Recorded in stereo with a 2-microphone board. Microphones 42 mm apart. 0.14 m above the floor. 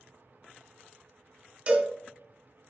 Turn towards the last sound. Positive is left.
turn(degrees=-30)  # may be behind; listen again after turning